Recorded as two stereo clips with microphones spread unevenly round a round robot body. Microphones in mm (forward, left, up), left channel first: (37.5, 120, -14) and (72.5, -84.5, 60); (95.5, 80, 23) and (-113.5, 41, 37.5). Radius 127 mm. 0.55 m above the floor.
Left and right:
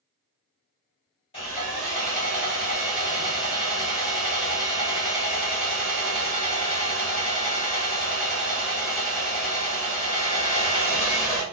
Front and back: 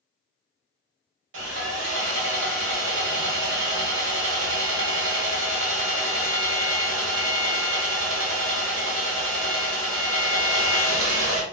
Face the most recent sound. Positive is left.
turn(degrees=170)